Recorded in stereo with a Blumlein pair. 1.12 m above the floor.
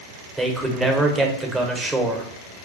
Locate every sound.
0.4 s a man speaking: 10° right, 0.6 m